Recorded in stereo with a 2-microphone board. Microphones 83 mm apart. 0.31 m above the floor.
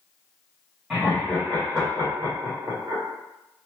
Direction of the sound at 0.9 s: 10° right (ahead or behind).